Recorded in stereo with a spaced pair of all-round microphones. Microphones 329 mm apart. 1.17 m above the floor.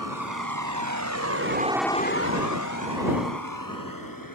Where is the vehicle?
75° right (ahead or behind); by 4.4 s 85° left.